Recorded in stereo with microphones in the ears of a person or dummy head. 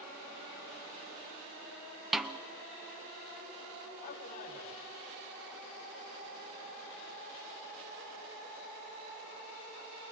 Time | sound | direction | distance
2.1 | a snare drum | 5° right (ahead or behind) | 0.7 m
4.0 | a man speaking | 40° left (ahead or behind) | 5.5 m